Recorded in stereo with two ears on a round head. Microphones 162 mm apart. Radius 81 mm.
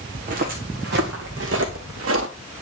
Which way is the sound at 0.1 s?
45° right (ahead or behind).